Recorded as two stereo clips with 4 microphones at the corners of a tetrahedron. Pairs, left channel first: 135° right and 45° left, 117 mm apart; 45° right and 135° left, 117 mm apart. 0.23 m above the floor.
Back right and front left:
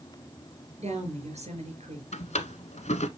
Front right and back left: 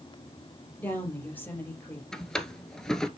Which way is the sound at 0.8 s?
30° left.